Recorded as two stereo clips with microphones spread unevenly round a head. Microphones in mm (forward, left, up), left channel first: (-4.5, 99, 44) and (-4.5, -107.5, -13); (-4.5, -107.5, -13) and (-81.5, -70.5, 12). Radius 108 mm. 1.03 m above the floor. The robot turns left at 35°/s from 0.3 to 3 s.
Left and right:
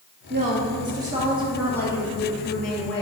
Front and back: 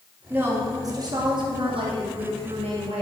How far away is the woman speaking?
About 2.5 m.